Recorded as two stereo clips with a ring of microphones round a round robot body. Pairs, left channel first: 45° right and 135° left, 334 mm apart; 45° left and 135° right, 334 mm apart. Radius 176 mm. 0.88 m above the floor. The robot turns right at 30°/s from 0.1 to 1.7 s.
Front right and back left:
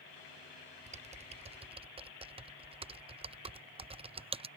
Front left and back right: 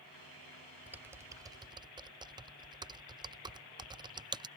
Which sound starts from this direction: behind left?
Typing on a keyboard, at 0.9 s.